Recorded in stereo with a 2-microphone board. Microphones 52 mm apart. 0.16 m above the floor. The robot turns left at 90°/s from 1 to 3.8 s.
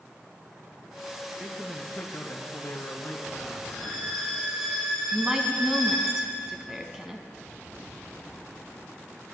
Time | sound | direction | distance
1.4 | a man speaking | 165° right | 3 m
3.7 | a violin | 5° right (ahead or behind) | 4.5 m
5.1 | a woman speaking | 10° right (ahead or behind) | 1.5 m